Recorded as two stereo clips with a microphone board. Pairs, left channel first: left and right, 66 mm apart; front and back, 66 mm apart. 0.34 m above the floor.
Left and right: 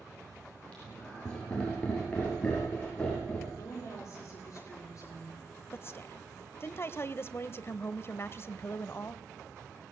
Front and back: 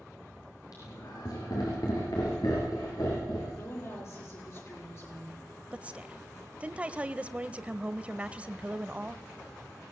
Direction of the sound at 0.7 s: 20° left.